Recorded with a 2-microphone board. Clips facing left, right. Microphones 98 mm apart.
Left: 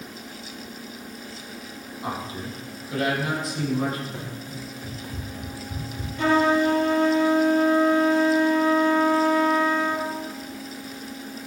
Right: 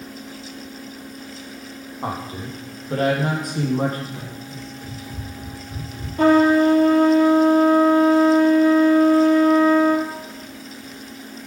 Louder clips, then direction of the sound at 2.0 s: Right 3 dB; 50° right (ahead or behind).